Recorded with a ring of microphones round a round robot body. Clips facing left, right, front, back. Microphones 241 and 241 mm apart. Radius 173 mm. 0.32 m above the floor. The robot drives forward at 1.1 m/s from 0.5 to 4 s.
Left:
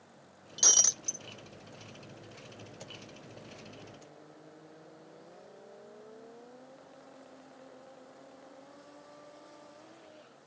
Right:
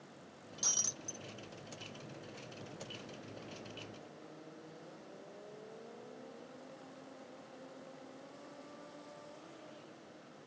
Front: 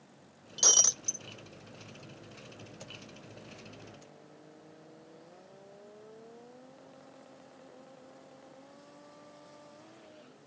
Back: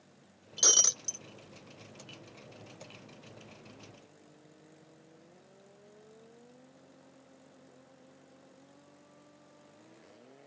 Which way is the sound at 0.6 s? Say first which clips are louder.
Left 8 dB, back 1 dB; 110° left.